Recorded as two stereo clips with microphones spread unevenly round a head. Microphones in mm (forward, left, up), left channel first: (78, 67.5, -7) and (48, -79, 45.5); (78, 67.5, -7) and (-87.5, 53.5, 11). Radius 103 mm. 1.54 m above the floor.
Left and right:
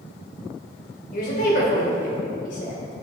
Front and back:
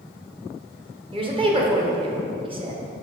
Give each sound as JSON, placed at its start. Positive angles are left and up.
{"t": 1.1, "sound": "a woman speaking", "azimuth_deg": 125, "distance_m": 1.4}